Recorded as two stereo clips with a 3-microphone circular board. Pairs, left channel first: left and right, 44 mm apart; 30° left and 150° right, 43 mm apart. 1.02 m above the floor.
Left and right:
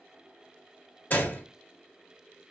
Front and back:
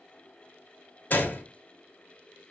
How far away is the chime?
I don't hear a chime.